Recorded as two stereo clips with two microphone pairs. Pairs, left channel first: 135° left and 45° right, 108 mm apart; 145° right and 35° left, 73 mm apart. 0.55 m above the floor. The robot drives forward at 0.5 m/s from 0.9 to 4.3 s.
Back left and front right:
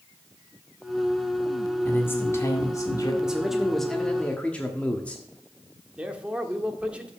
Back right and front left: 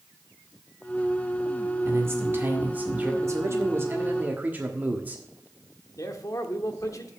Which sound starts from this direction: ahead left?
A man speaking, at 3.2 s.